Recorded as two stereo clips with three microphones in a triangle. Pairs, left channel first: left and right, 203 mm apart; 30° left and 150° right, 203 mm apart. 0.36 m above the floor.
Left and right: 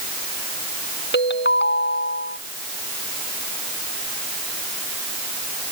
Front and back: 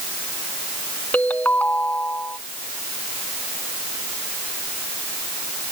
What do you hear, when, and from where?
1.1 s a ringtone: 110° left